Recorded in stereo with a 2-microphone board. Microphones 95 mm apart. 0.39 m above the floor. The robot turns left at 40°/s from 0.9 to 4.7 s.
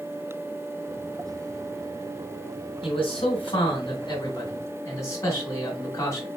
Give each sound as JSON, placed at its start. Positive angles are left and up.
{"t": 2.8, "sound": "a man speaking", "azimuth_deg": 110, "distance_m": 2.5}